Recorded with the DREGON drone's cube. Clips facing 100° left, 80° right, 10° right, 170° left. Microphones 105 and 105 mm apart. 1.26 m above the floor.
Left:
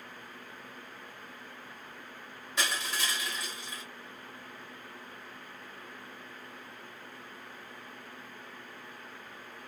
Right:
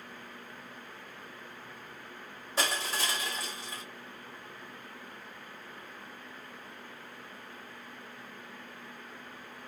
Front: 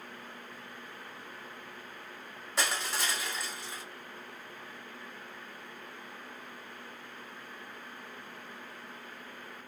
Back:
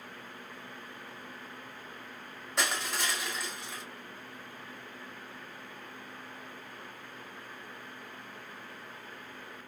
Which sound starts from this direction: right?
Crushing, at 2.6 s.